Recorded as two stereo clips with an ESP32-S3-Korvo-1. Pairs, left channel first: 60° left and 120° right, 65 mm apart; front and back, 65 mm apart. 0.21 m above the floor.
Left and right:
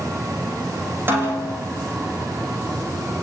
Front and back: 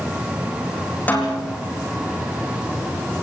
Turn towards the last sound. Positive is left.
turn(degrees=-65)